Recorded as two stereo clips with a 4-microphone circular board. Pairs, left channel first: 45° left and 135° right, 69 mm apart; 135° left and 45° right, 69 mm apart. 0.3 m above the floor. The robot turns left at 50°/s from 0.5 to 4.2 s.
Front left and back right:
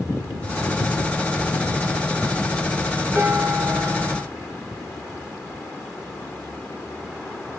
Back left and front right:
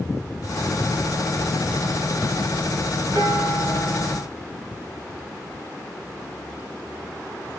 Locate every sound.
3.1 s dishes clattering: 75° right, 2.5 m; by 4.2 s 130° right, 2.5 m